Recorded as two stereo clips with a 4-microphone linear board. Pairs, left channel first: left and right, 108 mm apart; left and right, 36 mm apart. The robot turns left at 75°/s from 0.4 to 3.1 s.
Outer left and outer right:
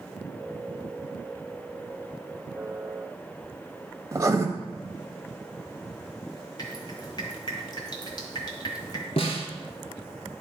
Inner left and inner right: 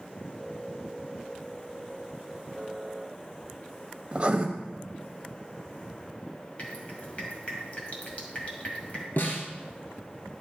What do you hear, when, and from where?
4.1 s writing: 30° right (ahead or behind), 1.0 m
6.6 s dripping: 40° left (ahead or behind), 1.8 m
9.2 s a snare drum: 65° left (ahead or behind), 1.4 m